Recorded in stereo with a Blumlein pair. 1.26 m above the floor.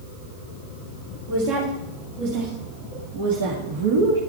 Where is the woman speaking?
55° right, 3 m; by 4.2 s 65° right, 1.5 m.